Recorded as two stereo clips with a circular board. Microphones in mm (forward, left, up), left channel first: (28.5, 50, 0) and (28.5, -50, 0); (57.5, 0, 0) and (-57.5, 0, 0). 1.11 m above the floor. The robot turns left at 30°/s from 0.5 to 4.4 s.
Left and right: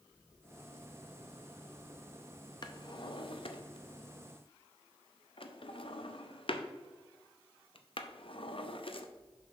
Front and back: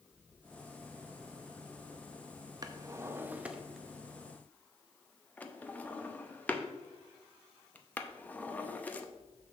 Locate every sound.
2.6 s a drawer: 130° left, 0.6 m; by 9.1 s 75° left, 0.6 m